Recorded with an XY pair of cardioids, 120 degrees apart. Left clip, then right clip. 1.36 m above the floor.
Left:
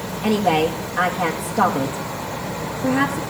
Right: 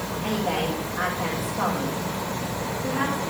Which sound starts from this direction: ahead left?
A woman speaking, at 0.2 s.